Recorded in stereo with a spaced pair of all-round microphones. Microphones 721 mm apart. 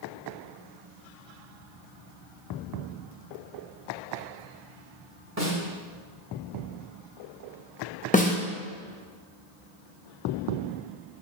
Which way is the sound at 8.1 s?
10° left (ahead or behind).